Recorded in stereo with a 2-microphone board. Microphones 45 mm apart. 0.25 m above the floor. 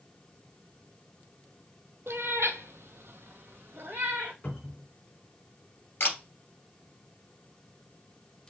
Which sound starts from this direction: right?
A cat meowing, at 2.1 s.